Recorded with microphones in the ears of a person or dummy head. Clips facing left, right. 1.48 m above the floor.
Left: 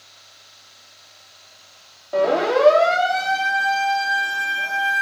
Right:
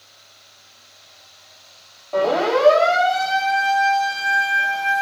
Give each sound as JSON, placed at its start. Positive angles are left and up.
{"t": 2.1, "sound": "a siren", "side_deg": 15, "distance_m": 5.5}